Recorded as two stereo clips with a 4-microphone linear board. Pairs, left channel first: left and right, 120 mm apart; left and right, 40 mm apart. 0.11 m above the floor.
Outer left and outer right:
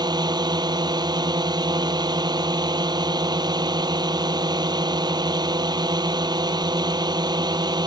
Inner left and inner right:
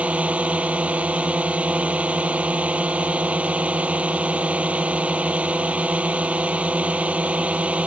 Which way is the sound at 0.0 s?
35° right (ahead or behind).